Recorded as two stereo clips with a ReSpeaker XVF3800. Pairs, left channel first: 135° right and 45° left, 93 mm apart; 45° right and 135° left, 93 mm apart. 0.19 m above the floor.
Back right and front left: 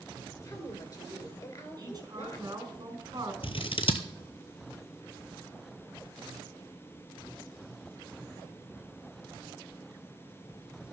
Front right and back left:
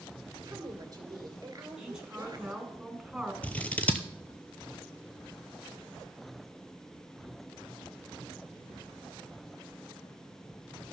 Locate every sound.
0.4 s a woman speaking: straight behind, 2.5 m
1.8 s a woman speaking: 55° left, 2 m
3.4 s scissors: 120° right, 0.9 m